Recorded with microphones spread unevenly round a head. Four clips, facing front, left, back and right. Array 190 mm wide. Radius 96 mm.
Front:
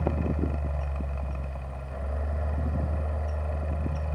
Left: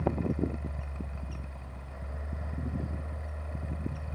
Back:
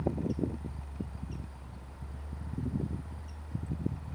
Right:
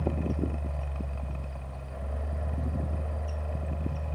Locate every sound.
0.0 s a fan: 25° right